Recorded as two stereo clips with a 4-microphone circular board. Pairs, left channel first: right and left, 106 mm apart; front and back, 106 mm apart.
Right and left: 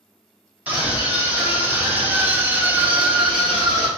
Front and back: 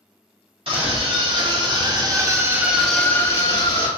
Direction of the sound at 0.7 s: 165° left.